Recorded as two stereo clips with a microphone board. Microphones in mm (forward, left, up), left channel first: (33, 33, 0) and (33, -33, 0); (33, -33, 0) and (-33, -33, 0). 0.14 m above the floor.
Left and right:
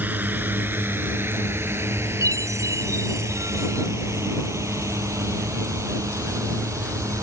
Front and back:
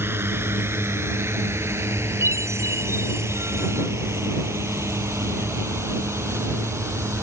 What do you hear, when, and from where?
0.0 s a drone: 140° right; by 7.2 s 130° right
2.2 s a chime: 130° right